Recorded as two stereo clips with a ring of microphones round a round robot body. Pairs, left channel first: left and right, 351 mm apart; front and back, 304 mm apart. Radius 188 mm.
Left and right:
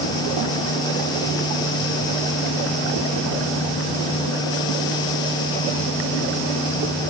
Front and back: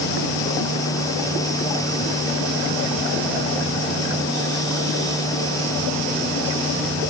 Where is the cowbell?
No cowbell in this recording.